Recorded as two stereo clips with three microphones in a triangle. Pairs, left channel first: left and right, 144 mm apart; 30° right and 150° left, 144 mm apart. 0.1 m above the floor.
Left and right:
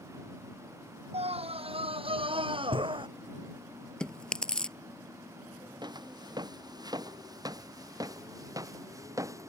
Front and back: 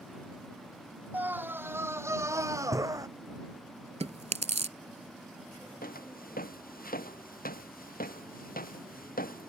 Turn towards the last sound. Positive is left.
turn(degrees=-20)